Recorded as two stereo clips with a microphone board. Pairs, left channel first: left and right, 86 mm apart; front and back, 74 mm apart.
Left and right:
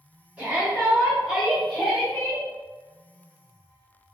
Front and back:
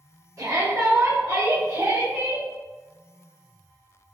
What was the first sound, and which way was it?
A shout, 155° right.